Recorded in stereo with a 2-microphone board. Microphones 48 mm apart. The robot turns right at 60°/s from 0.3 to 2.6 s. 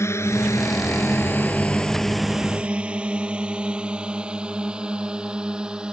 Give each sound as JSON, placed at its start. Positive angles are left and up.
{"t": 0.0, "sound": "a drone", "side_deg": 70}